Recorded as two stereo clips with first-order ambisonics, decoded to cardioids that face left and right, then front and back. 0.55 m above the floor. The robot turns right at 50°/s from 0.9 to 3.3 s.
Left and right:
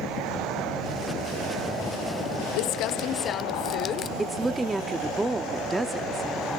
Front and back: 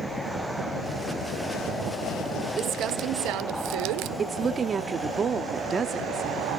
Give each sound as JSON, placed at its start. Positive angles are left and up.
{"t": 2.6, "sound": "crumpling", "azimuth_deg": 115, "distance_m": 0.6}
{"t": 4.2, "sound": "a woman speaking", "azimuth_deg": -155, "distance_m": 0.7}